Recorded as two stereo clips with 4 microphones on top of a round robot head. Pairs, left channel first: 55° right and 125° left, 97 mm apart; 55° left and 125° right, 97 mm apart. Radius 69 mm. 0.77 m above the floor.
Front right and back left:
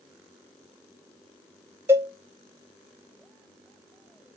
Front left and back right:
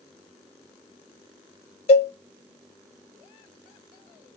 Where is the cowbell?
60° left, 0.6 m.